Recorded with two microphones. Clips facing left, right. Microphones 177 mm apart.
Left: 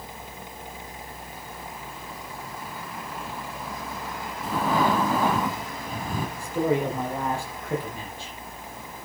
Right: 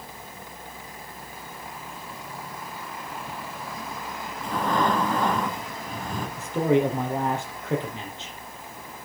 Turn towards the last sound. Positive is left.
turn(degrees=-20)  # may be behind; listen again after turning